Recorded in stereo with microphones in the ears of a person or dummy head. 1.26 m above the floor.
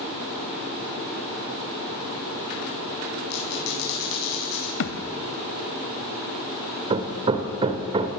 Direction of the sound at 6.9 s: 20° right (ahead or behind).